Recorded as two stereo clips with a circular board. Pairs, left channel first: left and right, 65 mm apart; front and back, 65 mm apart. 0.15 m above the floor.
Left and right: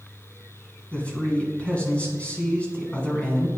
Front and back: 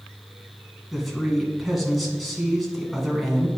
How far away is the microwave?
I don't hear a microwave.